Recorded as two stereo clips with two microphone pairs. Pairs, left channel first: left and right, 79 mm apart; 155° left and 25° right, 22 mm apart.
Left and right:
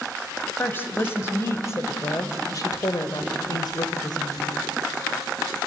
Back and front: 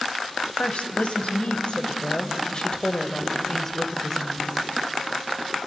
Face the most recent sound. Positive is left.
turn(degrees=75)